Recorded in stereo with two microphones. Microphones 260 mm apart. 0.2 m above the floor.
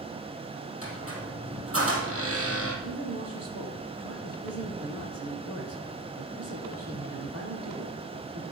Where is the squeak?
55° right (ahead or behind), 3.5 m.